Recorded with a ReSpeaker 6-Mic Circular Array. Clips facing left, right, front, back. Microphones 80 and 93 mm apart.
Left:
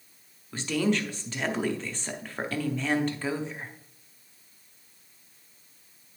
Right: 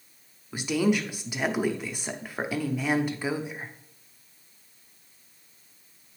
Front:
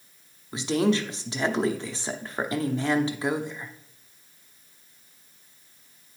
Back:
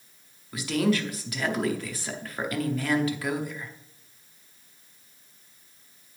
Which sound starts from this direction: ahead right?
A woman speaking, at 0.5 s.